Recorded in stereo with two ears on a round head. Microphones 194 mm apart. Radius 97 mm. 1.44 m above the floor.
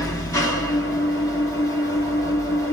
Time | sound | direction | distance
0.0 | an engine running | 15° left (ahead or behind) | 1.2 m